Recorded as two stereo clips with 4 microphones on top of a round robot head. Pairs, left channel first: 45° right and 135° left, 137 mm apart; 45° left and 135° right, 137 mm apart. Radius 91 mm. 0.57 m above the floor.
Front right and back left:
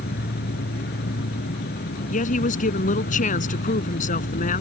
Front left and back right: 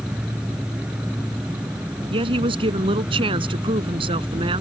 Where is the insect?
50° right.